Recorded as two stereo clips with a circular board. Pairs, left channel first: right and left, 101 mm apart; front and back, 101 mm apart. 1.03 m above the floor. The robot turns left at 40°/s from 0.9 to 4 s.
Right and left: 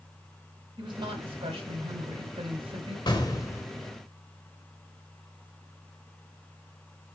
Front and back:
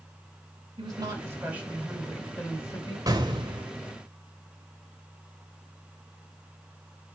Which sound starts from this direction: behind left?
A woman speaking, at 0.8 s.